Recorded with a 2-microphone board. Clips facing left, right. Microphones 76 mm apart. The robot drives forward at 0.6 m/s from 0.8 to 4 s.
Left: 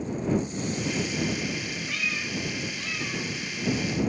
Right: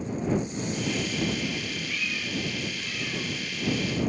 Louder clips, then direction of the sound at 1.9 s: Left 2 dB; 85° left.